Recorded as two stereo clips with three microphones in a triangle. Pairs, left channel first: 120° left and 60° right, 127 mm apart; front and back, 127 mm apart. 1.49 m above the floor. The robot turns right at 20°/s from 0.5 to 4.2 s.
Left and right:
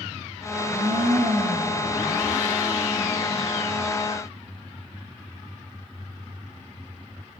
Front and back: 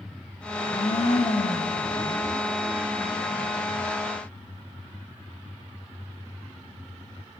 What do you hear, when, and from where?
0.5 s a blender: 45° right, 1.5 m; by 1.9 s 20° right, 1.5 m